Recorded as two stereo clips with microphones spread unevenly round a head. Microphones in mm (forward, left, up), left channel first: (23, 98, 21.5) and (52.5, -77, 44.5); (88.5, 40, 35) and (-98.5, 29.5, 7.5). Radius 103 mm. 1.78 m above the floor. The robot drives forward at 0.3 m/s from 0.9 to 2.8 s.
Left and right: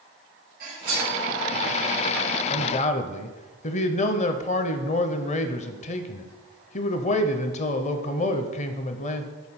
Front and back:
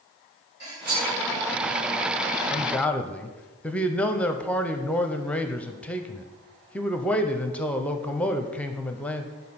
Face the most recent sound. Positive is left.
turn(degrees=65)